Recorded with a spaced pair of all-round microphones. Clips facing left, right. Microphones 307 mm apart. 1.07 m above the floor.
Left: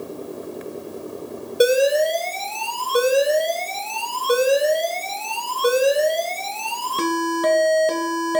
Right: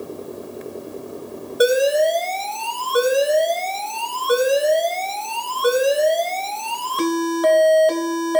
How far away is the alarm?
About 0.8 m.